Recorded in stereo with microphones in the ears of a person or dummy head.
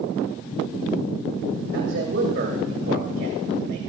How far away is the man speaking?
About 1.5 m.